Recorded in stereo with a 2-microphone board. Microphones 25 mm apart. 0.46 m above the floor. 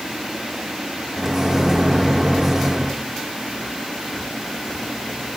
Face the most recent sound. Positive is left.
turn(degrees=-20)  # may be behind; listen again after turning